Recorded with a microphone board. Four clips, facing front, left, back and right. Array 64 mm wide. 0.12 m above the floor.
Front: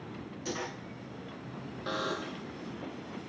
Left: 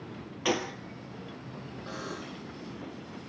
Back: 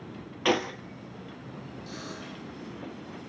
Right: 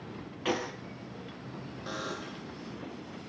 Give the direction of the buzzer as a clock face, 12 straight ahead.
12 o'clock.